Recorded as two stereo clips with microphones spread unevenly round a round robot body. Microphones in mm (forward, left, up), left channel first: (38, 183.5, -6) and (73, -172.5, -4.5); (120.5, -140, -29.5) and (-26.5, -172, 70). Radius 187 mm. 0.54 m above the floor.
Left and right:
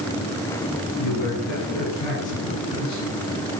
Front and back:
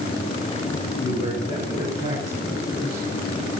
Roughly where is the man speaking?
Left.